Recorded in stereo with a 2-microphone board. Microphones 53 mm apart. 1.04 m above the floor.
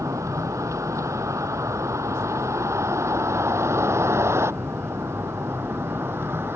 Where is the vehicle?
75° right (ahead or behind); by 6.6 s 50° right (ahead or behind).